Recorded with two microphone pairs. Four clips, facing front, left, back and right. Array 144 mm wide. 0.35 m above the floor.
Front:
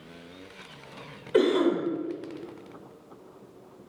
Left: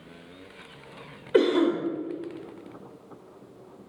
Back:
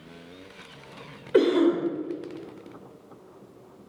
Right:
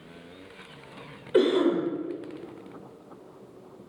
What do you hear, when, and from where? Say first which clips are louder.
1.3 s a cough: even, back 2 dB; 125° left, 0.8 m